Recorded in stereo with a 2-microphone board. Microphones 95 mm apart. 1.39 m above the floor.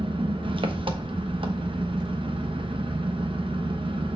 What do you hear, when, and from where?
0.0 s an engine running: 65° right (ahead or behind), 0.9 m